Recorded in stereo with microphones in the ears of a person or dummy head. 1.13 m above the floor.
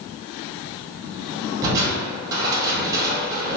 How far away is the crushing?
About 0.6 m.